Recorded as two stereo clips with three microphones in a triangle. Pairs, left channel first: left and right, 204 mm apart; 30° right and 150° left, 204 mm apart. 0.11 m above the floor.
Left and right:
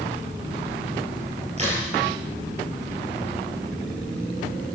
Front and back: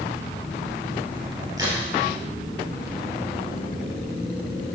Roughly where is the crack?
Behind right.